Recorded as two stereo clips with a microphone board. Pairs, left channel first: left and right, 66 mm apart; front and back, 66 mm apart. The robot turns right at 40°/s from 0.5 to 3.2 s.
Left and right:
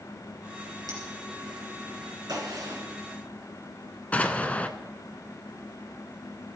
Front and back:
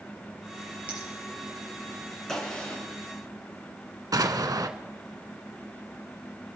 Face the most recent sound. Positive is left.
turn(degrees=160)